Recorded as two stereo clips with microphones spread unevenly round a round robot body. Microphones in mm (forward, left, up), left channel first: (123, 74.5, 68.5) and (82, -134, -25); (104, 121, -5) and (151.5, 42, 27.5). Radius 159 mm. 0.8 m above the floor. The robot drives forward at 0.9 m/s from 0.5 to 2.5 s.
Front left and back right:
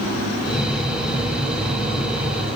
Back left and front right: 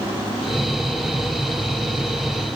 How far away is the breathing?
No breathing in this recording.